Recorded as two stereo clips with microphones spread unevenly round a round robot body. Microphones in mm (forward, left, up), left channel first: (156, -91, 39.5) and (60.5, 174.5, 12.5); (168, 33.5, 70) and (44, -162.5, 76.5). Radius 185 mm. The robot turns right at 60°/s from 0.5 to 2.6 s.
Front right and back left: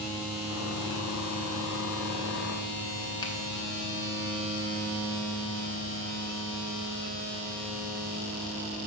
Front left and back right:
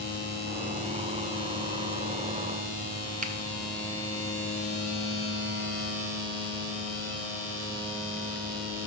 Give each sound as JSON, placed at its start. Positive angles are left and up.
{"t": 3.2, "sound": "a finger snap", "azimuth_deg": -145, "distance_m": 0.8}